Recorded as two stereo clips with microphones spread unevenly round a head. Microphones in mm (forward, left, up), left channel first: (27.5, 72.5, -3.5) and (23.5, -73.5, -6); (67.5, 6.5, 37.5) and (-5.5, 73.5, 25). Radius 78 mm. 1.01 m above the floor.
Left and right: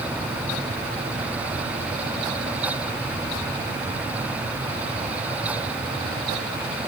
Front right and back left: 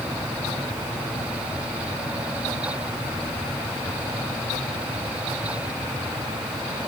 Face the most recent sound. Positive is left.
No sound to turn to.